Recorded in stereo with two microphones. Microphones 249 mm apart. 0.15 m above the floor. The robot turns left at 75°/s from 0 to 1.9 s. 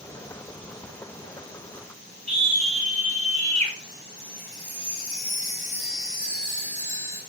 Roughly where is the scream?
Right.